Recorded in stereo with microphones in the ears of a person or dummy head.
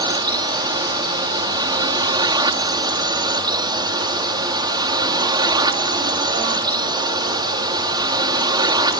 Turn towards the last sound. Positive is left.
turn(degrees=-20)  # may be behind; listen again after turning